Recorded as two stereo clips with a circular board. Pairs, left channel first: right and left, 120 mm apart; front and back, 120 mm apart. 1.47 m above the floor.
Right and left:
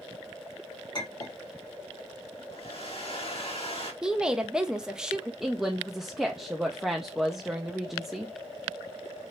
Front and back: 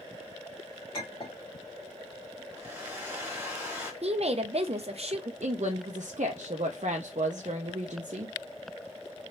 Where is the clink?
40° right, 1.9 m.